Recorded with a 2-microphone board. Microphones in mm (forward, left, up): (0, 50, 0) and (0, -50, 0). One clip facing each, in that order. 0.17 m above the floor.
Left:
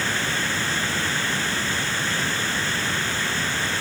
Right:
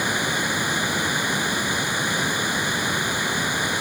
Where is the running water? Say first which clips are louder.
Right 2 dB; 15° right (ahead or behind).